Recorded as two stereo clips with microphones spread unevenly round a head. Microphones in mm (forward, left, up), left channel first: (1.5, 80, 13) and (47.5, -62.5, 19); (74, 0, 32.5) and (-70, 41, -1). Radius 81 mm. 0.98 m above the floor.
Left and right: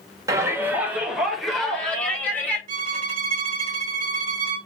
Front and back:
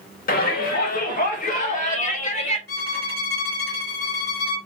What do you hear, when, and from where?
0.3 s a shout: 10° right, 1.2 m; by 2.6 s 30° left, 2 m
2.7 s a violin: 40° right, 1.5 m